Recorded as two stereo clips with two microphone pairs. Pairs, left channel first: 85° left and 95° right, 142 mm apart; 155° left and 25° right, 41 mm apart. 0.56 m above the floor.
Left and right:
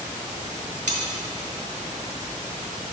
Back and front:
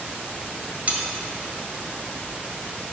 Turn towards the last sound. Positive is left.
turn(degrees=-70)